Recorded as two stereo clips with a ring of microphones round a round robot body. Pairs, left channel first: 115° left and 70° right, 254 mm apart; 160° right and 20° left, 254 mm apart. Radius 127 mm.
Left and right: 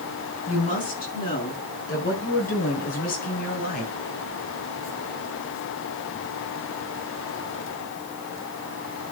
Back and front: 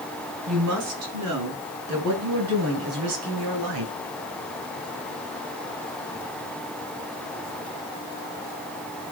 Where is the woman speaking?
50° left, 5 m; by 3.9 s 55° left, 3 m.